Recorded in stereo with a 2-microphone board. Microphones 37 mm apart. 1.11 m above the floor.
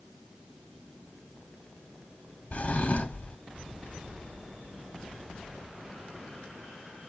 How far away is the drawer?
About 1.2 m.